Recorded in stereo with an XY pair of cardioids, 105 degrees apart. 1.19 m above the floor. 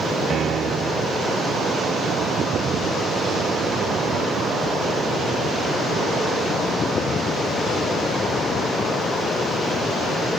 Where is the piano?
50° right.